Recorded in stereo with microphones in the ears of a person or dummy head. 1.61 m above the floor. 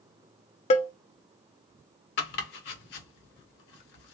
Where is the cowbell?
30° left (ahead or behind), 0.6 m.